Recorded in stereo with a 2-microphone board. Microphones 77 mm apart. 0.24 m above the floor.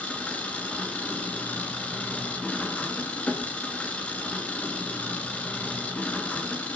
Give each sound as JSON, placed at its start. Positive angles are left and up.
{"t": 0.0, "sound": "an engine running", "side_deg": 15, "distance_m": 1.8}